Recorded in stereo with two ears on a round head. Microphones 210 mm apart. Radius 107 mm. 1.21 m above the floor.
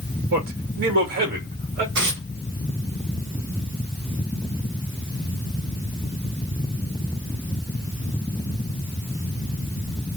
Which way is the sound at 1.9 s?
55° right (ahead or behind).